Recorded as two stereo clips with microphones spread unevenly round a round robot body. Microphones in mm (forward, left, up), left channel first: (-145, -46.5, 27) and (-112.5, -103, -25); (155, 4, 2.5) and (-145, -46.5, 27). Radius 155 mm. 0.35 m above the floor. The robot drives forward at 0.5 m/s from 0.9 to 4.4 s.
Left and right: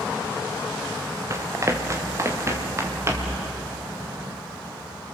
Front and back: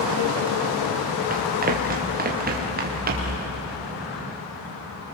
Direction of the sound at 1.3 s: 105° right.